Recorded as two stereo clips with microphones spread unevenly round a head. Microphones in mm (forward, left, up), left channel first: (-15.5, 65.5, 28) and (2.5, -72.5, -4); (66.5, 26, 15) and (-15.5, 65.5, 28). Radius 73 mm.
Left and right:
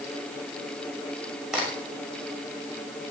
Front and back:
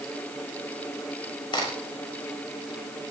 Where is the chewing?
No chewing in this recording.